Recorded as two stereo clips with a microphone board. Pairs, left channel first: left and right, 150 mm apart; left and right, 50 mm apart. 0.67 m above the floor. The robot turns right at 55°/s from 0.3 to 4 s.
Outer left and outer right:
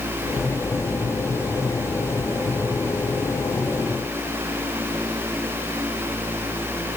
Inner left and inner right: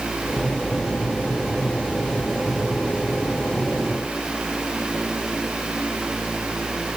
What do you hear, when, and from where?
Only background noise.